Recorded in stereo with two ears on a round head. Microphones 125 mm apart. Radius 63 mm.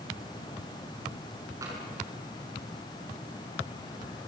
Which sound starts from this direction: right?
Tapping, at 1.6 s.